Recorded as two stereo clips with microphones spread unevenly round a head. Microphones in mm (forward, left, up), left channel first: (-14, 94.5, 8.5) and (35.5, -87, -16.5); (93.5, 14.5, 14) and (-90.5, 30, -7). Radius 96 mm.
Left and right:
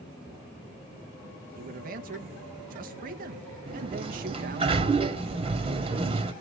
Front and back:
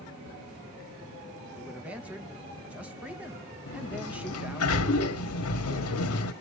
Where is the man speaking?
105° right, 1.1 m.